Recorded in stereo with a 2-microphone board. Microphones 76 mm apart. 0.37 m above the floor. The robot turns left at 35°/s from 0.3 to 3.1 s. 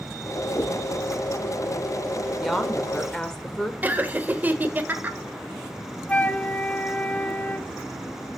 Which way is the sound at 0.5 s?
55° left (ahead or behind).